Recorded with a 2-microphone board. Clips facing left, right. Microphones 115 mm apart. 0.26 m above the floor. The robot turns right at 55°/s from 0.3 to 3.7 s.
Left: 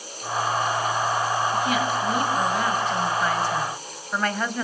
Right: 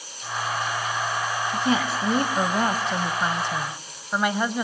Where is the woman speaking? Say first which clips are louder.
Even; 135° right, 1.5 m; by 4.6 s 20° right, 1.5 m.